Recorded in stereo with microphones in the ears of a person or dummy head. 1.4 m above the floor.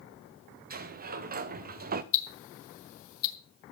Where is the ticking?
50° left (ahead or behind), 2.5 m.